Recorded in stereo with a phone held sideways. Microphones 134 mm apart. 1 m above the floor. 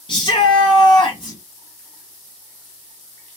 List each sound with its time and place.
0.1 s a shout: 35° left (ahead or behind), 1.0 m